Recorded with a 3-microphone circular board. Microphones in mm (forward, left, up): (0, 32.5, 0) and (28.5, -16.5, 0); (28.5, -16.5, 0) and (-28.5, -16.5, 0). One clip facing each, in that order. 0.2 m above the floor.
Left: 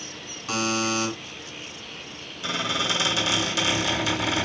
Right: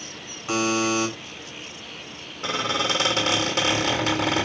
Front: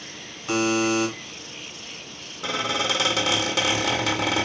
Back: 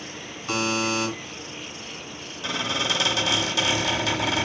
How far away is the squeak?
About 1.5 m.